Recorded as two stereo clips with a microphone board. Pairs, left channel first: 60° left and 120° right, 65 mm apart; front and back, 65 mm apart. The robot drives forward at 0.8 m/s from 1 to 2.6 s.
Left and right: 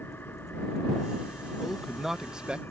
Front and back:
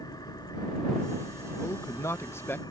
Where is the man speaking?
30° right; by 2.6 s 50° right.